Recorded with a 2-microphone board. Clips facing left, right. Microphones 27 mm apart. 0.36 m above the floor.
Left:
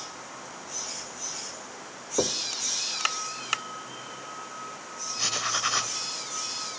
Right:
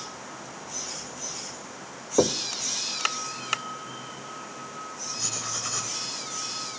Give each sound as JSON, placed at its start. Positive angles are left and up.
{"t": 2.2, "sound": "knocking", "side_deg": -20, "distance_m": 0.5}
{"t": 5.2, "sound": "writing", "side_deg": 35, "distance_m": 1.4}